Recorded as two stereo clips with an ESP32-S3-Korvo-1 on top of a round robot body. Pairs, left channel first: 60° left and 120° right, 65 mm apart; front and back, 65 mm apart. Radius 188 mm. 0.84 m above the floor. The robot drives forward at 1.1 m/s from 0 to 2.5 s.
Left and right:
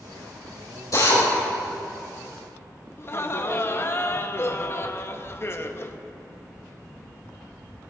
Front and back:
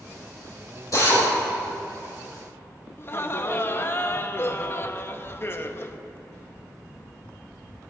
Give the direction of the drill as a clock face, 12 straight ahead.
11 o'clock.